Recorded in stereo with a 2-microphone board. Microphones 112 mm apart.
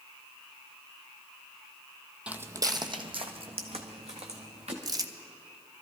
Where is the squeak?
I don't hear a squeak.